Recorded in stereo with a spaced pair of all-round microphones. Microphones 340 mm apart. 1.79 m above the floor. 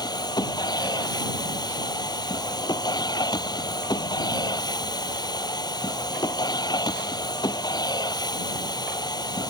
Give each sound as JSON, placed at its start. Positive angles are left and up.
{"t": 0.0, "sound": "a machine running", "side_deg": 10}